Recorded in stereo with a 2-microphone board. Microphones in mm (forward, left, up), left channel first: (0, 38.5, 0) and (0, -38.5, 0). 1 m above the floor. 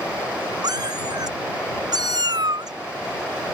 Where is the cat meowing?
60° right (ahead or behind).